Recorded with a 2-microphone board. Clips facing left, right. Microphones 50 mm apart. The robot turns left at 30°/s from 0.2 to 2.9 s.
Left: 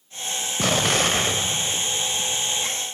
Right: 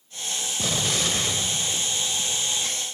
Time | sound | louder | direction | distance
0.6 | an explosion | left 6 dB | 70° left | 0.5 m